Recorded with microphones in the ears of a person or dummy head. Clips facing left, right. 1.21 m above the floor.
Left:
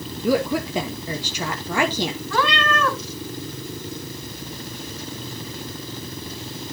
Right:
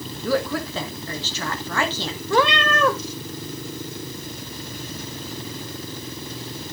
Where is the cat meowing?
15° right (ahead or behind), 1.0 m.